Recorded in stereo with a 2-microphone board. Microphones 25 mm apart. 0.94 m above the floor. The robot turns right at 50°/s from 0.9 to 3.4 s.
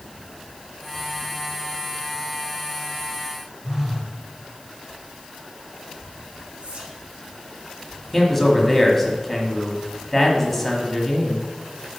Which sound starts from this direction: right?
Whispering, at 6.6 s.